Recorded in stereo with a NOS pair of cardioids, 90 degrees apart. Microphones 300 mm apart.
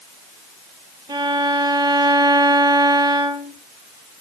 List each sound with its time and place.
1.1 s a violin: 15° right, 3 m